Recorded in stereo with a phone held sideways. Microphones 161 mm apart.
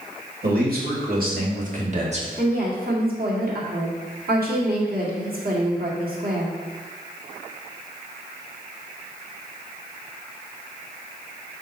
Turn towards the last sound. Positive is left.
turn(degrees=-70)  # may be behind; listen again after turning